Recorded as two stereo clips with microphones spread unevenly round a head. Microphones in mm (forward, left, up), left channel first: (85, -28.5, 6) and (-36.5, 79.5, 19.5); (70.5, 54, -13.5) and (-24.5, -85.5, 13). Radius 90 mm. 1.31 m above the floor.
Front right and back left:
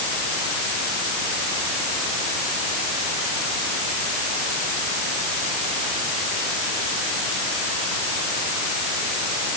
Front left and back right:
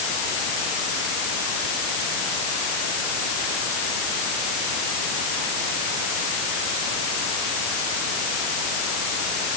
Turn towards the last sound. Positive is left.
No sound to turn to.